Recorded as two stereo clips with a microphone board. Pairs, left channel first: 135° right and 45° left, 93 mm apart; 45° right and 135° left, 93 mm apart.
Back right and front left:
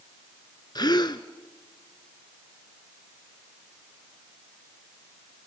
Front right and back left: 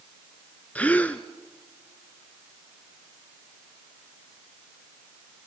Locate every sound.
0.8 s a gasp: 115° right, 1.1 m